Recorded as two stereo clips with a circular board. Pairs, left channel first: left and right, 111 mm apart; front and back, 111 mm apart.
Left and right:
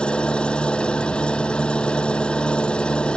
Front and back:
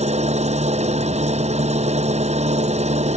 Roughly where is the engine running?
Behind.